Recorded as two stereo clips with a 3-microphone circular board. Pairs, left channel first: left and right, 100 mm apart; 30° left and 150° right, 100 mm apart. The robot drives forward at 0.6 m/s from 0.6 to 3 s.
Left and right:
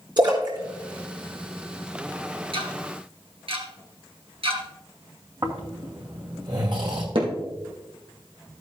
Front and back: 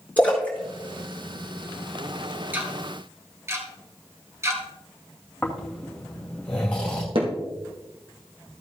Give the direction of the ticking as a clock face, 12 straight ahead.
3 o'clock.